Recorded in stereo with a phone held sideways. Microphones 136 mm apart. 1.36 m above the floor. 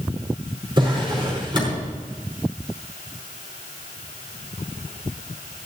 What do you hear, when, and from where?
0.8 s a drawer: 35° right (ahead or behind), 5 m